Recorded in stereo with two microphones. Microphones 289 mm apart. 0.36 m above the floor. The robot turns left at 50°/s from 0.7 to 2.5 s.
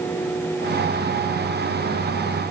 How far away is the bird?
No bird in this recording.